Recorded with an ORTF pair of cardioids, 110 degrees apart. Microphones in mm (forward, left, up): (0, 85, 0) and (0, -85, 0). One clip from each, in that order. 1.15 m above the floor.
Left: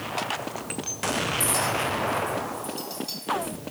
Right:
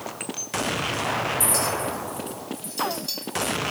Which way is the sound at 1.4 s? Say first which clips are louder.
Even; 25° right.